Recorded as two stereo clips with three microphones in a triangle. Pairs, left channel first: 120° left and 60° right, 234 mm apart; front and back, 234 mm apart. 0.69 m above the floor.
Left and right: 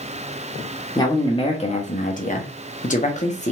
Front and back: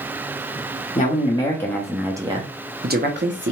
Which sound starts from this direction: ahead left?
A man speaking, at 0.9 s.